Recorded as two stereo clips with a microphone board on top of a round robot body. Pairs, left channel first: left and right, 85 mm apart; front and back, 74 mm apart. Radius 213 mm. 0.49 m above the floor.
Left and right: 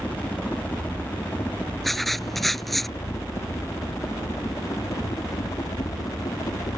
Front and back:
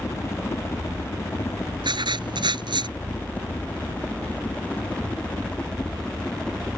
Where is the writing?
Straight behind.